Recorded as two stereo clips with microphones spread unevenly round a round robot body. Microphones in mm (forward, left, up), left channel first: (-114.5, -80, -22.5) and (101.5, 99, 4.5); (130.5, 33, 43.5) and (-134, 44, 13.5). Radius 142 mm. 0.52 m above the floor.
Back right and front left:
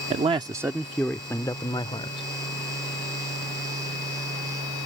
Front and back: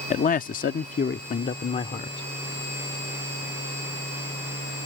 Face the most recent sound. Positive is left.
turn(degrees=-70)